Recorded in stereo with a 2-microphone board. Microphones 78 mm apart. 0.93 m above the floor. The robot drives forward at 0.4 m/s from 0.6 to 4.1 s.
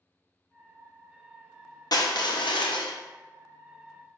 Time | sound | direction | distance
1.9 | crushing | 60° left (ahead or behind) | 0.6 m